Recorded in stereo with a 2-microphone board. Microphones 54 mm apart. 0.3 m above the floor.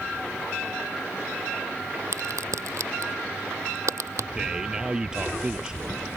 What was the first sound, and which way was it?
A crack, 70° right (ahead or behind).